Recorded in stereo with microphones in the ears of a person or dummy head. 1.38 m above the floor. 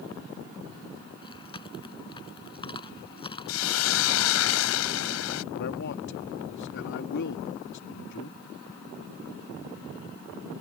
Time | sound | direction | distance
1.2 | chewing | 20° left (ahead or behind) | ?
3.5 | a hiss | 85° left | ?
5.5 | a man speaking | 55° left (ahead or behind) | ?